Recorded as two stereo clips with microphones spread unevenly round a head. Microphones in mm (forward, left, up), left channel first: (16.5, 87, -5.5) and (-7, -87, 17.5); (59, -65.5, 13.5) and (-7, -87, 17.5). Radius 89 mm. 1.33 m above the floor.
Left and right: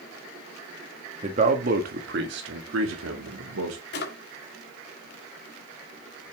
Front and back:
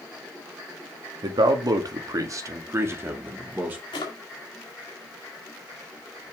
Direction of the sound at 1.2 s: 155° right.